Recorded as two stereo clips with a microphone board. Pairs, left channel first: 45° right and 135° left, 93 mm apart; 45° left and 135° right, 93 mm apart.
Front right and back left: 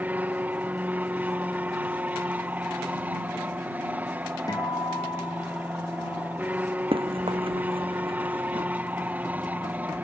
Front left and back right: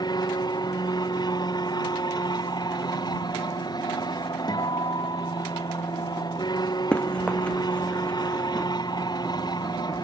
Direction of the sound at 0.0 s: 65° left.